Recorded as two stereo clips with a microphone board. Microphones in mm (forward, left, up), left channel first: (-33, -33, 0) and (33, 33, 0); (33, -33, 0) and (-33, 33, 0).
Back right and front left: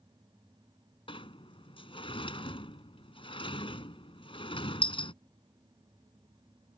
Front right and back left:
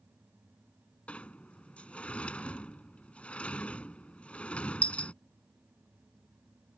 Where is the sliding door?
120° right.